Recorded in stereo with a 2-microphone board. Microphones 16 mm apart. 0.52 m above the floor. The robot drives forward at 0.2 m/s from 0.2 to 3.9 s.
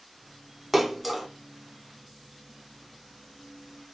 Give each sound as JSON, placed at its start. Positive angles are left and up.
{"t": 0.7, "sound": "a splash", "side_deg": -10, "distance_m": 0.5}